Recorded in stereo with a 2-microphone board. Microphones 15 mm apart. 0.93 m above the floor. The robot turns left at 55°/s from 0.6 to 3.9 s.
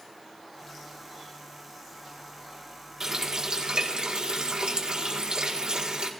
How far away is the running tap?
About 1.6 m.